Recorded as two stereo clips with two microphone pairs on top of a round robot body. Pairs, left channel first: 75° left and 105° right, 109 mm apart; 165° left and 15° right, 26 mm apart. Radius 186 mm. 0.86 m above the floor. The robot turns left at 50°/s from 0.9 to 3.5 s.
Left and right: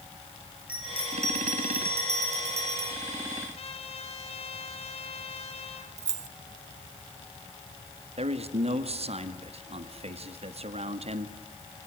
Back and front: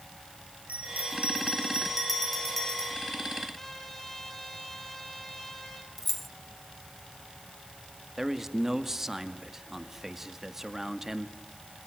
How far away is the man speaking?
About 2 m.